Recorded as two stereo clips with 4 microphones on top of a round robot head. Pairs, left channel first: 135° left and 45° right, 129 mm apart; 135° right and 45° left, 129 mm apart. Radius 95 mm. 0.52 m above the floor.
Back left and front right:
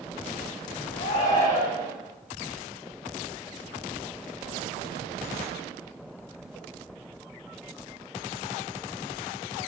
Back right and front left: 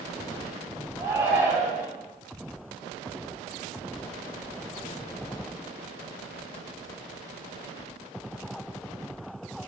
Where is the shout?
115° left, 4 m.